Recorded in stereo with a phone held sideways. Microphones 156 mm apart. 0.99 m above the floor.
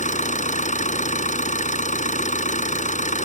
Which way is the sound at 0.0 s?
55° left (ahead or behind).